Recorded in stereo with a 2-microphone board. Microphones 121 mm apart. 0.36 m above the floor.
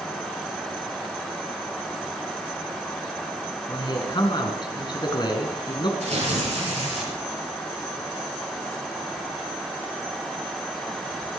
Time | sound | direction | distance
3.7 | a man speaking | 40° left (ahead or behind) | 3.5 m
6.0 | tearing paper | 80° right | 7.5 m